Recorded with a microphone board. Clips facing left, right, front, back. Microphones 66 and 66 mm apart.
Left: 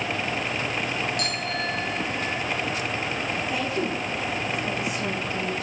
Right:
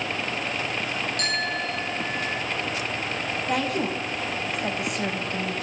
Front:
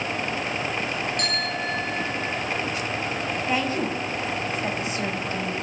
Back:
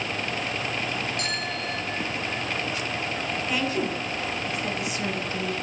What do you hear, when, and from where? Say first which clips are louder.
1.2 s a bicycle bell: right 1 dB, front 3 dB; 45° right, 9.5 m; by 2.4 s 40° right, 10 m
3.5 s a woman speaking: right 4 dB, front 2 dB; 60° right, 5 m